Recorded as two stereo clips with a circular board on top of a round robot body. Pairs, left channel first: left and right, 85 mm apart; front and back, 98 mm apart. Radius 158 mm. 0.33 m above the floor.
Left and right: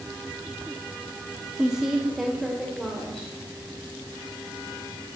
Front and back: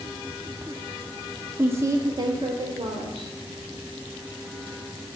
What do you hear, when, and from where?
1.6 s a woman speaking: 155° right, 0.9 m; by 3.3 s 175° left, 1.6 m